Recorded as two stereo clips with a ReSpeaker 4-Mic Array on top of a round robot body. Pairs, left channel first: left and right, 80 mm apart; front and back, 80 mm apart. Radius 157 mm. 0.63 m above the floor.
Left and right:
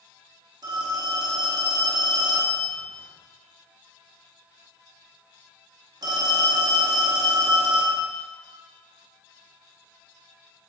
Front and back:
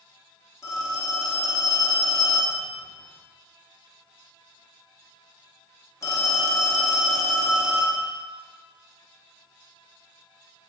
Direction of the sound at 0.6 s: 50° right.